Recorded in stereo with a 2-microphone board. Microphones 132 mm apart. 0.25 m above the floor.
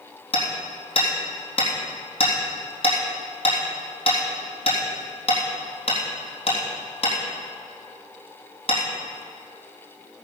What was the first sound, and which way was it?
Hammering, 50° left (ahead or behind).